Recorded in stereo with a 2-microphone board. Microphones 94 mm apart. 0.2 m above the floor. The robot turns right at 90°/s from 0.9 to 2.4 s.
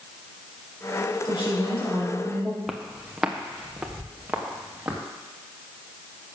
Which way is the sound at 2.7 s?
Centre (ahead or behind).